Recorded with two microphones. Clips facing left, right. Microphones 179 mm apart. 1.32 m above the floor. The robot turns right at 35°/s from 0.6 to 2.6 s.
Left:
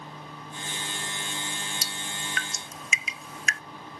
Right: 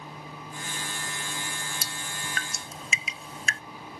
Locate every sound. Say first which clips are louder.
1.8 s dripping: left 1 dB; 60° right (ahead or behind); by 3.6 s 30° right (ahead or behind)